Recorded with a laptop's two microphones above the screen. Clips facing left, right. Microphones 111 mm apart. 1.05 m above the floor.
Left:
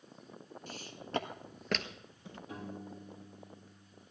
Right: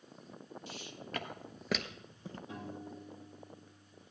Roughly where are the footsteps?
Left.